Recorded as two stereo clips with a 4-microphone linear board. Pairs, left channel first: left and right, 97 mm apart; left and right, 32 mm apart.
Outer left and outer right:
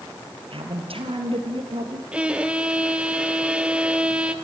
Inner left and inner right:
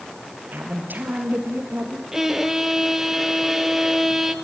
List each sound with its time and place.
0.5 s a woman speaking: 70° right (ahead or behind), 3.5 m
2.1 s a violin: 10° right (ahead or behind), 1.3 m